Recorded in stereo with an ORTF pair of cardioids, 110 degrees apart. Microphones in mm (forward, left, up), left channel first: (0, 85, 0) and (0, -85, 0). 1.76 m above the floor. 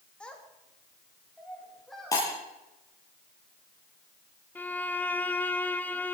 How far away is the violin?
About 0.9 m.